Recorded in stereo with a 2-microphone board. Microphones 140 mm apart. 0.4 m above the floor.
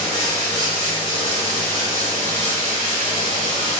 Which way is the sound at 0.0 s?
40° left (ahead or behind).